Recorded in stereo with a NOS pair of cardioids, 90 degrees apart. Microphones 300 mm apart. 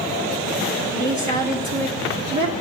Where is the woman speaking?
70° right, 1.4 m.